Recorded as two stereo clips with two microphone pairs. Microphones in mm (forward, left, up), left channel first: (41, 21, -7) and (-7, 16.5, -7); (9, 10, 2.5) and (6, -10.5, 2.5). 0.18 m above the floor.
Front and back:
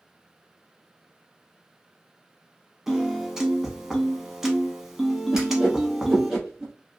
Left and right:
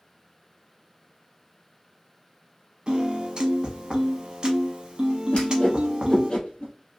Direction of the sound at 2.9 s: 95° right.